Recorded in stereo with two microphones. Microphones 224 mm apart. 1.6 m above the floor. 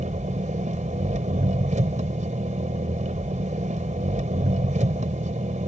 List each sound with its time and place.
0.0 s an engine running: 30° right (ahead or behind)